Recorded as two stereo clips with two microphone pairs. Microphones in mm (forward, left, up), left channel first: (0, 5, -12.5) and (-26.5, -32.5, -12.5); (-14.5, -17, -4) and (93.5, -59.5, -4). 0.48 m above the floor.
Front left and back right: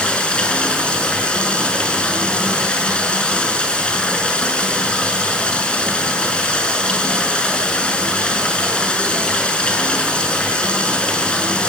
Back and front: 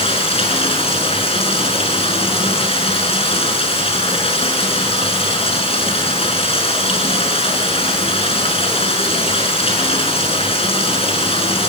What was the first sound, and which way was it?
Running water, 120° left.